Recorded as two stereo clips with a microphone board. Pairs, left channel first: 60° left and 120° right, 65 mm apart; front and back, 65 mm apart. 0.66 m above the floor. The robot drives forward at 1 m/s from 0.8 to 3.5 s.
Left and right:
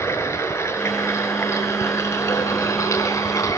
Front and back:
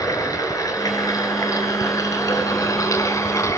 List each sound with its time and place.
0.0 s running water: 20° left, 6 m; by 3.6 s 30° left, 3.5 m